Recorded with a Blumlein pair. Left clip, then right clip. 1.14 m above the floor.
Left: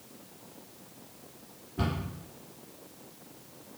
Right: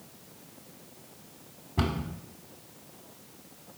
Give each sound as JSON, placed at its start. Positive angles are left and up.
{"t": 1.8, "sound": "a cupboard door", "azimuth_deg": -50, "distance_m": 1.1}